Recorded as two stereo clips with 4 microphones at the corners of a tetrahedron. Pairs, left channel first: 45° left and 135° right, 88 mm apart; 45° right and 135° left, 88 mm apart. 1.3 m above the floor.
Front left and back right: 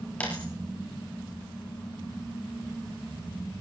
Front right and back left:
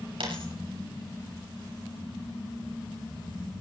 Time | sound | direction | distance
0.2 | a dropped coin | 120° left | 7 m